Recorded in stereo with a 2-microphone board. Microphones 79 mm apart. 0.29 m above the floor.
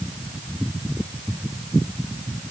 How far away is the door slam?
I don't hear a door slam.